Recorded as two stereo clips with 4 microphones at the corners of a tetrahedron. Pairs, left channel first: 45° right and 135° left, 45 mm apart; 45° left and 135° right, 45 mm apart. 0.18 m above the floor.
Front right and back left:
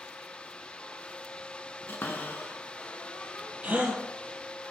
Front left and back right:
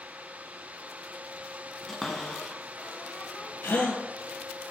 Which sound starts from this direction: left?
A gasp, at 3.6 s.